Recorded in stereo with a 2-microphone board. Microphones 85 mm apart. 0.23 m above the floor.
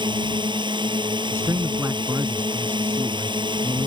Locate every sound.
0.0 s a drone: 70° right (ahead or behind)
1.3 s a man speaking: 35° right (ahead or behind)